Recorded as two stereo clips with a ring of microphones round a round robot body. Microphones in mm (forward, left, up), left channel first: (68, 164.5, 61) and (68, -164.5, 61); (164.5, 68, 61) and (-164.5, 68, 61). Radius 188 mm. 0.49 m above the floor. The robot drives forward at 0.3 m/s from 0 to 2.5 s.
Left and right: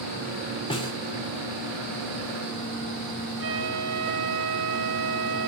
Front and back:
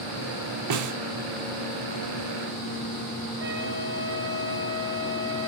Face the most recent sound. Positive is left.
turn(degrees=-120)